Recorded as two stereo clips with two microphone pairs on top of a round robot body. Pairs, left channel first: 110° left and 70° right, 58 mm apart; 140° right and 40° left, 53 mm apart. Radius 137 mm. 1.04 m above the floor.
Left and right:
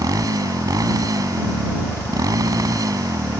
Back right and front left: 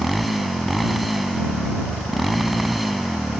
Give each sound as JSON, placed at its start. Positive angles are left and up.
{"t": 0.0, "sound": "a motorcycle", "azimuth_deg": -45}